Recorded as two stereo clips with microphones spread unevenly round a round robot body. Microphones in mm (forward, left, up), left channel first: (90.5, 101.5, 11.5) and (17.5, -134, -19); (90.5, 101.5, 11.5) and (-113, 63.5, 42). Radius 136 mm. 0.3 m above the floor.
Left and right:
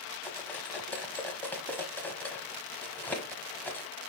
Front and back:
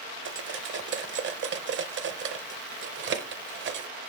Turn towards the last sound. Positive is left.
turn(degrees=160)